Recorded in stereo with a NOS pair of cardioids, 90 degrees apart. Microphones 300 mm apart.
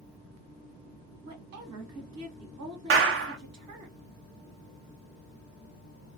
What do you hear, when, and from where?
1.2 s a woman speaking: 65° right, 1.3 m
2.9 s a clap: 45° right, 0.6 m